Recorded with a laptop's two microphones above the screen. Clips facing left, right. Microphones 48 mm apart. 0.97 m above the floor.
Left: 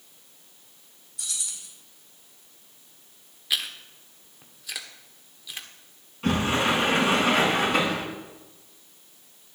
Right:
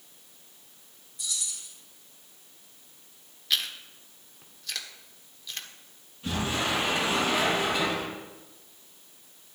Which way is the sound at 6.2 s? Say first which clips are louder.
Left 6 dB; 70° left (ahead or behind).